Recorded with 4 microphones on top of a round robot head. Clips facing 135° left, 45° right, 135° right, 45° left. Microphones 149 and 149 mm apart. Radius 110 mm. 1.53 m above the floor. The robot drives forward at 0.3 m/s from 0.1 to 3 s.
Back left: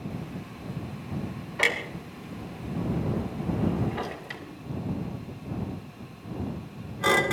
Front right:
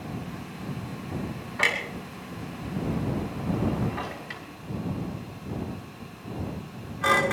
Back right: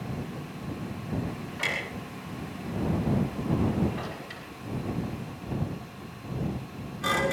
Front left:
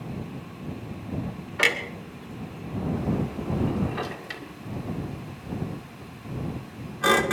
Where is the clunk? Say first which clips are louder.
Back left 1 dB, front left 10 dB; 60° left, 2.5 m; by 7.3 s 70° left, 2.5 m.